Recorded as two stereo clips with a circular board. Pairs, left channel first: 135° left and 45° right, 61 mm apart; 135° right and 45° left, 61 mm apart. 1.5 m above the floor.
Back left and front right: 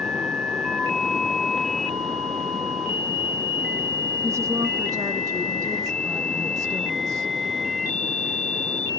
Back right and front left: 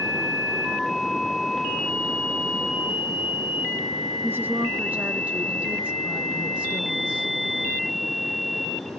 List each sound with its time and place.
4.2 s a woman speaking: 5° right, 0.7 m; by 7.3 s 30° right, 2.5 m